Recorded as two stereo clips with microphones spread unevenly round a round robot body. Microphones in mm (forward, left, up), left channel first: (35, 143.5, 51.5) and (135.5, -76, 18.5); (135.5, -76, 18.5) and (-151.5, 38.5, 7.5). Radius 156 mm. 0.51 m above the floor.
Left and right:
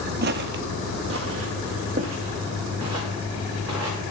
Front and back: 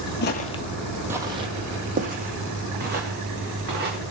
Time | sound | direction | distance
0.2 | footsteps | 35° right | 0.6 m